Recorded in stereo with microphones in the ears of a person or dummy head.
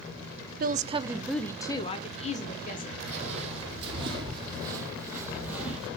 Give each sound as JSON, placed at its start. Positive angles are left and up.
{"t": 0.6, "sound": "a woman speaking", "side_deg": -55, "distance_m": 0.6}
{"t": 3.1, "sound": "footsteps", "side_deg": -35, "distance_m": 4.0}